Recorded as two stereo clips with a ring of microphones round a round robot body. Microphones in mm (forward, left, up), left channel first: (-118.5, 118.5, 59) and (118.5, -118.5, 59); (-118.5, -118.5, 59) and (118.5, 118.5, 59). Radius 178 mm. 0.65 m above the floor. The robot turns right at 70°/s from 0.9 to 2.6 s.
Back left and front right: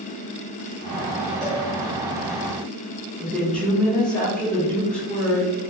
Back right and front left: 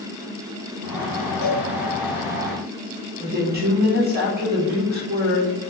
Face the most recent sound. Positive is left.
turn(degrees=50)